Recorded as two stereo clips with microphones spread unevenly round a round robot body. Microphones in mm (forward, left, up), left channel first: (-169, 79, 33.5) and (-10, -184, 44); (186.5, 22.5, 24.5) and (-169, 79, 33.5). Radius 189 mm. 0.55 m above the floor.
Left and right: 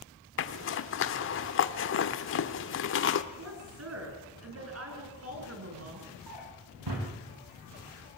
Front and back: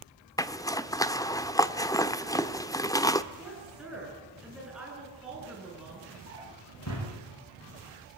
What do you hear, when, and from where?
0.4 s a zipper: 70° left, 0.9 m
3.3 s a woman speaking: 100° right, 8 m
6.3 s a drawer: 60° right, 9 m